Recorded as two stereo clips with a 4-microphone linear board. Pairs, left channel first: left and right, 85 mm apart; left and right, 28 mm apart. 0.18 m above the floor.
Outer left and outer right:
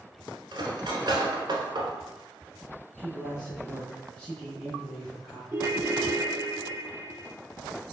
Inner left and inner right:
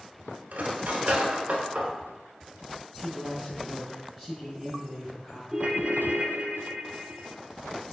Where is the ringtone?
30° right (ahead or behind), 0.8 m.